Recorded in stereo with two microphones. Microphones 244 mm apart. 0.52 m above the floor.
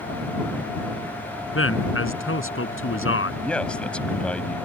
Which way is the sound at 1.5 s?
70° left (ahead or behind).